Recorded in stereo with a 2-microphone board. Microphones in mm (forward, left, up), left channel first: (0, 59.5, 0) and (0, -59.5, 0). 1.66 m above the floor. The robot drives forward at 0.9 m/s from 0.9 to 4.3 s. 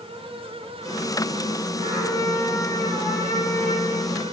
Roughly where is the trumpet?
Right.